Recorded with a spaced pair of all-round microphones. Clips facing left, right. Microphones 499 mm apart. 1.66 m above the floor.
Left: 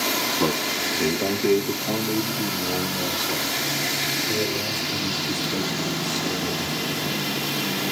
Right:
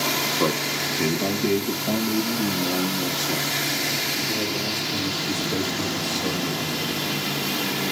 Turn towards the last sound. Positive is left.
turn(degrees=-80)